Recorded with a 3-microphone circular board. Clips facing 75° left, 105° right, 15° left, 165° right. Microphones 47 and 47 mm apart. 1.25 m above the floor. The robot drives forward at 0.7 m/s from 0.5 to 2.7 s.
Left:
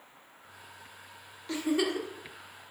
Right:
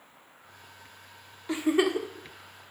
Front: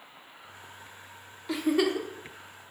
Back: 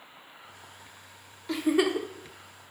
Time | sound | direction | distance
1.5 | a giggle | 65° right | 0.7 m